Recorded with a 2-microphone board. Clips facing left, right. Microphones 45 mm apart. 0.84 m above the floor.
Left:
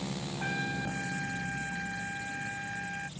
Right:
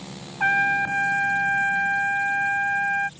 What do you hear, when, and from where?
0.4 s a trumpet: 60° right (ahead or behind)